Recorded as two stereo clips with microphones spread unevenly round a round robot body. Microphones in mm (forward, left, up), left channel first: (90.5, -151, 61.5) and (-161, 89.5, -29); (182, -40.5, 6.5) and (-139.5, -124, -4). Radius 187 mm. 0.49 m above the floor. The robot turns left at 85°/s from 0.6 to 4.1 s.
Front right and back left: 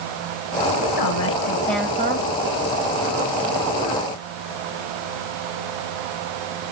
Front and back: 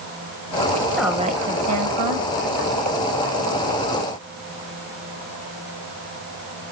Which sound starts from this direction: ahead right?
A woman speaking, at 0.8 s.